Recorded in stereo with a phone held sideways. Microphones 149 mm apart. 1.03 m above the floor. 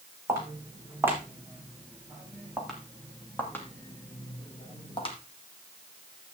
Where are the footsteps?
20° right (ahead or behind), 3.5 m; by 5.2 s 40° left (ahead or behind), 2.5 m.